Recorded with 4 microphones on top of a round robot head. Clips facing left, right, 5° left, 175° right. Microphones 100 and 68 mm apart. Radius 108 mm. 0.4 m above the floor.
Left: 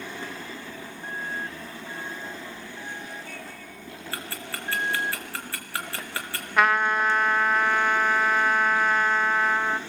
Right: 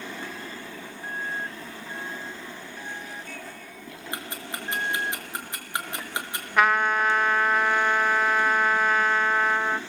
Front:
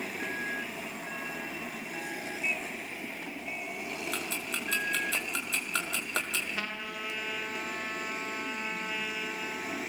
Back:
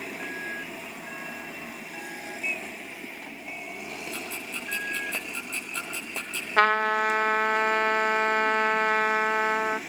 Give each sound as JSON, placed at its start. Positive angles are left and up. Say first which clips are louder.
{"t": 4.1, "sound": "ticking", "louder": "right 1 dB, front 1 dB", "azimuth_deg": -20, "distance_m": 4.5}
{"t": 6.6, "sound": "a trumpet", "louder": "even, back 16 dB", "azimuth_deg": 180, "distance_m": 1.2}